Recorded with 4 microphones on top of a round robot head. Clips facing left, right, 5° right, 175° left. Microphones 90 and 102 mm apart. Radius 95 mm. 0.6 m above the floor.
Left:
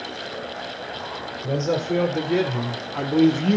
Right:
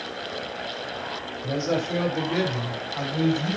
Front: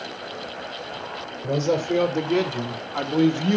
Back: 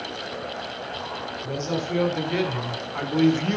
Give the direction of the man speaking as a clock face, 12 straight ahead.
11 o'clock.